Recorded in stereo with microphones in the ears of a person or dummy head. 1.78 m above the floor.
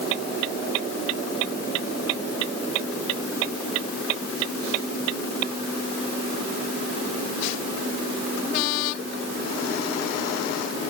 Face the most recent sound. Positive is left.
No sound to turn to.